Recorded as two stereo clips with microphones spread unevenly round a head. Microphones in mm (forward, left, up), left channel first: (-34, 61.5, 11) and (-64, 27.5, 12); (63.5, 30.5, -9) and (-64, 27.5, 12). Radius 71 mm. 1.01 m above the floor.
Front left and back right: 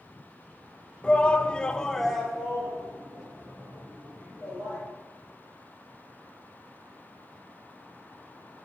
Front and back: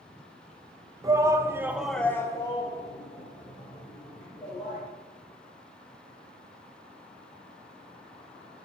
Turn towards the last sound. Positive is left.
turn(degrees=-55)